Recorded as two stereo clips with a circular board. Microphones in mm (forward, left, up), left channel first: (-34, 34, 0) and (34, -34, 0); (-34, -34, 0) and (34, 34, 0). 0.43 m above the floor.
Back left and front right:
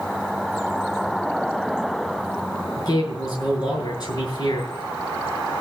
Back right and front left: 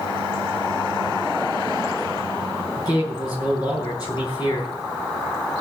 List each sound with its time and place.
2.8 s a man speaking: 175° left, 9.5 m